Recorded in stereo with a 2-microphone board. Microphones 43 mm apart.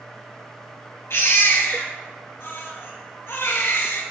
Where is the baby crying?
65° left (ahead or behind), 1.5 m.